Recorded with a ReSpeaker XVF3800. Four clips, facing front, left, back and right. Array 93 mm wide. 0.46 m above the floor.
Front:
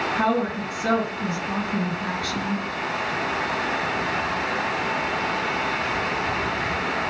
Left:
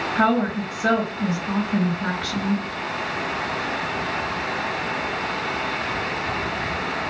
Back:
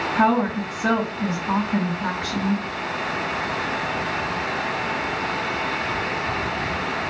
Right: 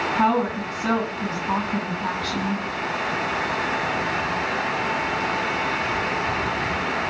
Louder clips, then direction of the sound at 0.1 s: Left 1 dB, back 5 dB; 120° left.